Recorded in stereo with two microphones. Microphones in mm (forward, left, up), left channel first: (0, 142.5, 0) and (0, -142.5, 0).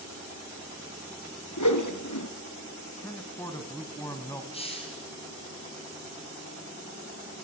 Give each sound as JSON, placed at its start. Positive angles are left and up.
{"t": 1.6, "sound": "a whoosh", "side_deg": 85, "distance_m": 2.5}
{"t": 3.0, "sound": "a man speaking", "side_deg": 10, "distance_m": 3.0}
{"t": 4.5, "sound": "a hiss", "side_deg": 20, "distance_m": 4.5}